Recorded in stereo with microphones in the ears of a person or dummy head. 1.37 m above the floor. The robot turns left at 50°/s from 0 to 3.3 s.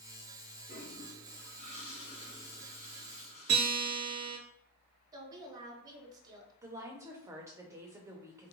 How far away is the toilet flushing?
About 2.0 m.